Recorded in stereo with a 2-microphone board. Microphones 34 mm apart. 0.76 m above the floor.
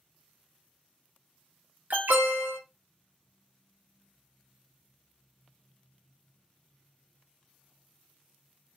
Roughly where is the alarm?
Right.